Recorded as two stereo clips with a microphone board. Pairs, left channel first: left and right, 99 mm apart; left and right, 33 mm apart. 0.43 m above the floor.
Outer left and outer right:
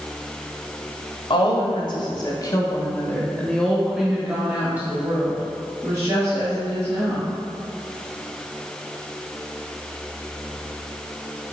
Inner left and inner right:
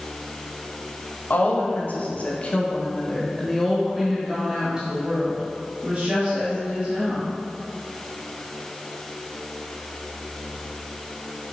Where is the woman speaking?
60° left (ahead or behind), 1.6 m; by 7.3 s 35° right (ahead or behind), 3 m.